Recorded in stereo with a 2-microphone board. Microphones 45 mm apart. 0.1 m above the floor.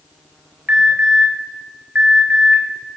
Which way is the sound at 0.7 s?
35° right (ahead or behind).